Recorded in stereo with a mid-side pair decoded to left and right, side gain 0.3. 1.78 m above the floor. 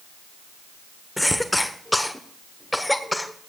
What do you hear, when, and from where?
1.2 s a cough: 15° left, 1.2 m